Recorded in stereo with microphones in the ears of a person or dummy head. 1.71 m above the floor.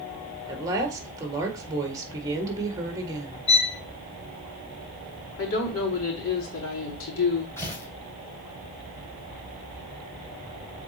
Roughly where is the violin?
Left.